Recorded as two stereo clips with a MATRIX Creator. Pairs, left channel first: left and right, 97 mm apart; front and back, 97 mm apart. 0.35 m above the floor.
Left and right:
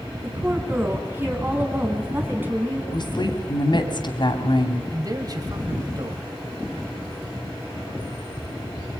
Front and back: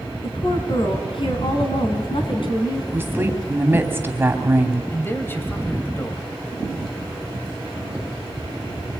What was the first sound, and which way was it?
A woman speaking, 25° right.